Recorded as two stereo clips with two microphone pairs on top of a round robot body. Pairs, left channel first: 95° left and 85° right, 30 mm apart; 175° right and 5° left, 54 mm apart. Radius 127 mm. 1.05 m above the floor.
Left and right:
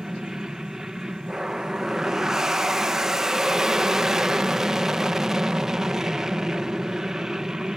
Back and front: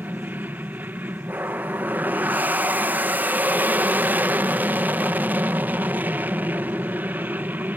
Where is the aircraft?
30° right.